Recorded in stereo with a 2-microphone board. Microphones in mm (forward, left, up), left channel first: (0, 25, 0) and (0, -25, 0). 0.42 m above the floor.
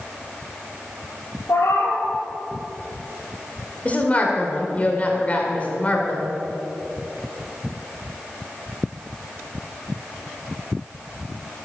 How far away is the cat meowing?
About 2.0 m.